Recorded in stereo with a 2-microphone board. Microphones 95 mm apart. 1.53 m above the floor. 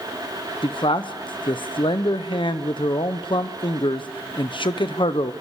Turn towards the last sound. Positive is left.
turn(degrees=60)  # may be behind; listen again after turning